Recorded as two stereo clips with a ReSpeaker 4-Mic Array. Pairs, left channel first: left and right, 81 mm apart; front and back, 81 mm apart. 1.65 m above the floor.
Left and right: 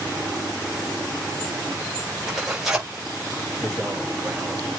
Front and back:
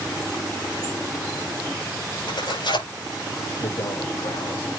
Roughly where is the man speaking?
Ahead.